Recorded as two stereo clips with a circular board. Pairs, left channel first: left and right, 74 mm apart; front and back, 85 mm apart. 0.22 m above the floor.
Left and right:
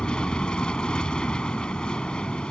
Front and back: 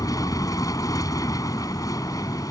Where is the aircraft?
15° left.